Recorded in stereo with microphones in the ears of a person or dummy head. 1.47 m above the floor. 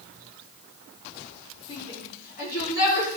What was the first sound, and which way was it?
A shout, 45° left (ahead or behind).